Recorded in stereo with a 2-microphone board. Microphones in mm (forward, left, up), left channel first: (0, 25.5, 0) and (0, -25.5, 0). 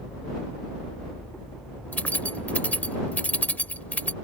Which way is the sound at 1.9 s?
30° left (ahead or behind).